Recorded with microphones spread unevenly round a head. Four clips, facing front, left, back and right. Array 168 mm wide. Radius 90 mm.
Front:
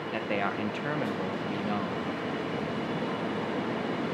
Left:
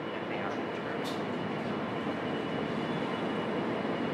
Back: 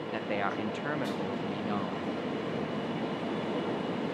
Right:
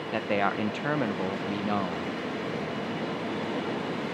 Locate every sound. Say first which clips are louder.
0.1 s a man speaking: right 11 dB, front 2 dB; 85° right, 1.2 m